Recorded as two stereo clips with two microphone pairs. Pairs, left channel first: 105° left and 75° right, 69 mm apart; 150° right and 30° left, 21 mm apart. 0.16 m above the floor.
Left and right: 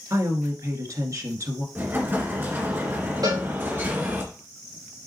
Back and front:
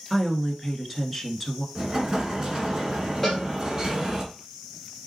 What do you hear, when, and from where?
0.1 s a woman speaking: 65° right, 1.7 m
1.8 s an explosion: 25° right, 2.5 m
3.2 s a cowbell: 65° right, 4.5 m